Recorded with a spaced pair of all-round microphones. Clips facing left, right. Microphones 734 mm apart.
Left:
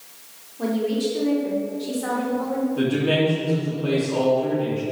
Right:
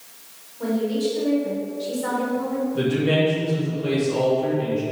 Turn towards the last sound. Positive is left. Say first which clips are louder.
# right 1 dB
turn(degrees=-50)  # may be behind; listen again after turning